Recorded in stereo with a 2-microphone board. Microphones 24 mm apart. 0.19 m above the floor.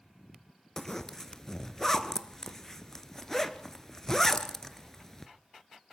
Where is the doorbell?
I don't hear a doorbell.